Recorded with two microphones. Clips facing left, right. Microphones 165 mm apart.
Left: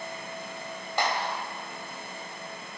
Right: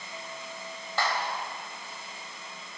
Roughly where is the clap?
Centre.